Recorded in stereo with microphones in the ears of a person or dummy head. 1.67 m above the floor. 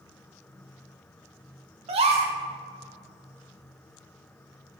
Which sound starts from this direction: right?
A gasp, at 1.9 s.